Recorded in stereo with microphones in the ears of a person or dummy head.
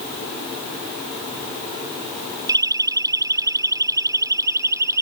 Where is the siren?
20° right (ahead or behind).